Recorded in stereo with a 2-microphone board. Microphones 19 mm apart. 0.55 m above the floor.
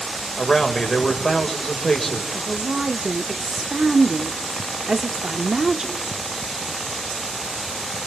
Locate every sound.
0.4 s a man speaking: 25° left (ahead or behind), 2 m
2.3 s a woman speaking: 25° right (ahead or behind), 1.0 m